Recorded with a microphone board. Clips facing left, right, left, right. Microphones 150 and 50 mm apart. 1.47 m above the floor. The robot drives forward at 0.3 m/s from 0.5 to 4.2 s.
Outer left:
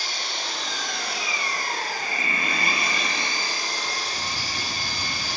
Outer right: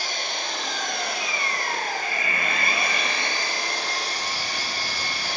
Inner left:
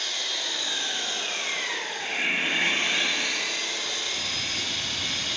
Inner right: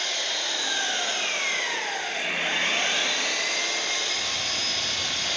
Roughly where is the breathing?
Left.